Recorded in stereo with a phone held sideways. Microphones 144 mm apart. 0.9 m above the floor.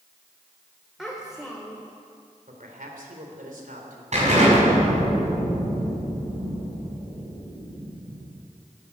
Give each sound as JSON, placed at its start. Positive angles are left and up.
{"t": 1.0, "sound": "a child speaking", "side_deg": 0, "distance_m": 1.7}
{"t": 2.5, "sound": "a man speaking", "side_deg": -80, "distance_m": 3.0}
{"t": 4.1, "sound": "an explosion", "side_deg": -55, "distance_m": 5.5}